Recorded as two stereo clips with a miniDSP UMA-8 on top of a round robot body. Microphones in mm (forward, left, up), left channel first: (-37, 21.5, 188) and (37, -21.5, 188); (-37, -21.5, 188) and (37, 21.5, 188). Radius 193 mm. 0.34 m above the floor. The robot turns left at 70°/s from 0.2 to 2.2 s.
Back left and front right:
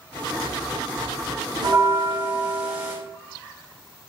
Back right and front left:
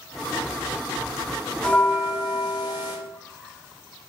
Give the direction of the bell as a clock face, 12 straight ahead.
2 o'clock.